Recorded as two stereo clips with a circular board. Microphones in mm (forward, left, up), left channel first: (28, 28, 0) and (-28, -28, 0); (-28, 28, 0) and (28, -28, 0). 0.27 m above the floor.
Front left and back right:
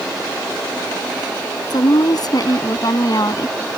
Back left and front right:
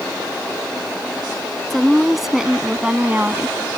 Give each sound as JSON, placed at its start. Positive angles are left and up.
{"t": 1.7, "sound": "a woman speaking", "azimuth_deg": 45}